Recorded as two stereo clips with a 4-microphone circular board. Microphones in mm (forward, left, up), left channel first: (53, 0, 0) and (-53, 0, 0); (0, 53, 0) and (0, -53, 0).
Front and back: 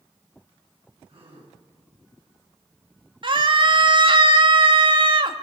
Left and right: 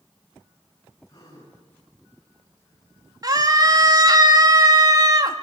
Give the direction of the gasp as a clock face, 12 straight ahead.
7 o'clock.